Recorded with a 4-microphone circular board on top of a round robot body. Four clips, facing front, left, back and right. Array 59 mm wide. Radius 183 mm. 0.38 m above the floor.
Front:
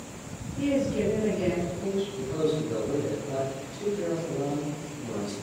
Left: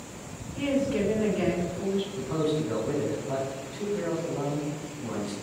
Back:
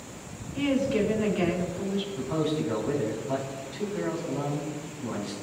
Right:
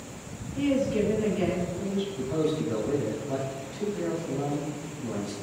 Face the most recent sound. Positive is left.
turn(degrees=170)